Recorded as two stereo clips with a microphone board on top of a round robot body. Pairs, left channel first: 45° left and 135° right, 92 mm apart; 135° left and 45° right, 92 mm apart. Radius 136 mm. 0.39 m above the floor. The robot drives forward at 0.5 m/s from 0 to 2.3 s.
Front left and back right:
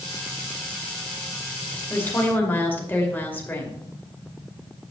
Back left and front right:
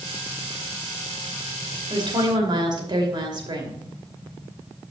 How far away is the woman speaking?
About 2.5 m.